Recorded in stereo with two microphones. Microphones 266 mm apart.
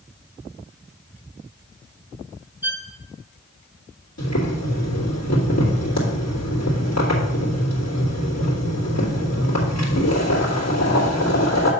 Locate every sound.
2.6 s a violin: 5° right (ahead or behind), 0.8 m
4.2 s boiling: 75° left (ahead or behind), 2.5 m